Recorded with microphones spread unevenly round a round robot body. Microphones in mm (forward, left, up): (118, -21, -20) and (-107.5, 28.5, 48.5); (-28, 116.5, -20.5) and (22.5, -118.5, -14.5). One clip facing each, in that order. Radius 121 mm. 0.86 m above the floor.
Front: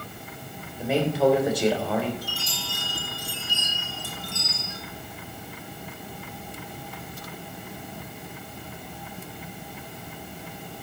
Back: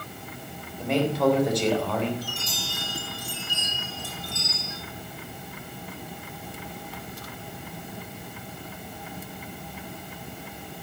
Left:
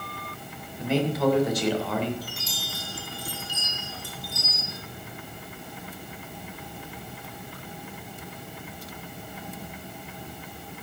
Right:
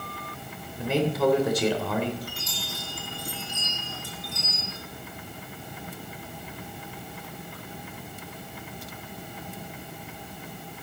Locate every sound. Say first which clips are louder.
0.8 s a man speaking: front 1 dB, even; 95° right, 3.5 m
2.2 s a chime: back 1 dB, right 1 dB; 15° left, 5 m